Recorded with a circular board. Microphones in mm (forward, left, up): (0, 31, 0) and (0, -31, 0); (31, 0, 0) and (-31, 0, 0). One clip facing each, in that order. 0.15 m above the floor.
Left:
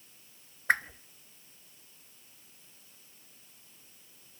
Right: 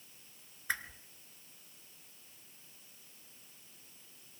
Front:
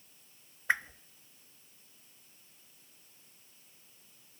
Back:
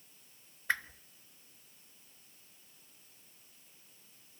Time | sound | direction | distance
0.7 | a whoosh | 70° left | 0.6 m